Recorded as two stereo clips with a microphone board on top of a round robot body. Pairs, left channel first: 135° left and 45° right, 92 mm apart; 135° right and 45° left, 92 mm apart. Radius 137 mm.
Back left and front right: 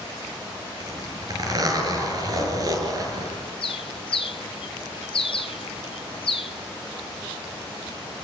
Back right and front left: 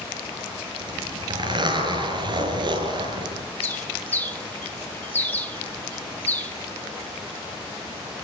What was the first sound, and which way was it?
A zipper, 5° left.